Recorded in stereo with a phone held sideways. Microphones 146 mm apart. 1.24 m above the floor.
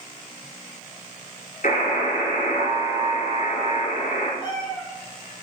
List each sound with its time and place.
1.6 s a buzzer: 70° left (ahead or behind), 2.5 m
4.4 s a cat meowing: 35° left (ahead or behind), 3.5 m